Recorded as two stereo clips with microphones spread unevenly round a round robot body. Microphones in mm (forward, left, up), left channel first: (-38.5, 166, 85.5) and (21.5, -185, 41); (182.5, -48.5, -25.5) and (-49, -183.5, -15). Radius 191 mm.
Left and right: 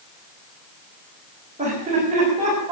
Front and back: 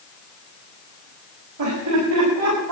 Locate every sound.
1.6 s laughter: 150° right, 6 m; by 2.7 s 155° right, 7 m